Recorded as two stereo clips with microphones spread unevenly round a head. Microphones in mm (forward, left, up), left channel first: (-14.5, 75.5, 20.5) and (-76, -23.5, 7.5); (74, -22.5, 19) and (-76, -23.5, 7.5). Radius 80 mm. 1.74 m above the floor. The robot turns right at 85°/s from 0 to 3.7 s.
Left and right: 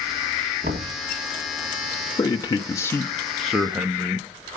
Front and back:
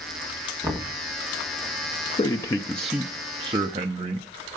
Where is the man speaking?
25° left, 0.6 m; by 4.3 s 155° left, 0.6 m.